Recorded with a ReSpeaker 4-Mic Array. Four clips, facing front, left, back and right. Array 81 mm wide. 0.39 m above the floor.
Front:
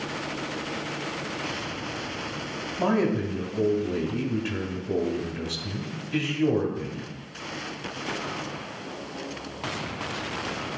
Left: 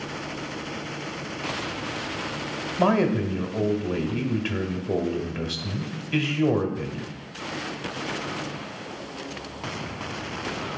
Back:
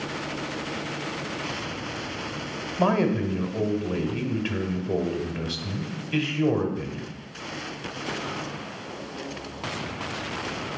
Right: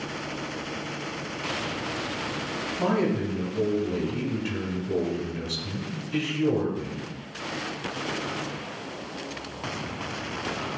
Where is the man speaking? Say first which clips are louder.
Left 4 dB, back 1 dB; 125° left, 1.3 m.